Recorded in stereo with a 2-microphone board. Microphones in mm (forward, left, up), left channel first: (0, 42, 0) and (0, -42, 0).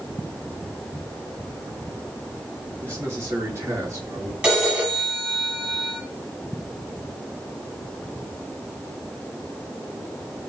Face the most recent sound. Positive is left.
turn(degrees=-15)  # may be behind; listen again after turning